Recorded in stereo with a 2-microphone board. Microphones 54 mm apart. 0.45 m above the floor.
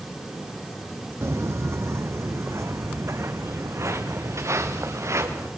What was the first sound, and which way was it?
Footsteps, 55° right (ahead or behind).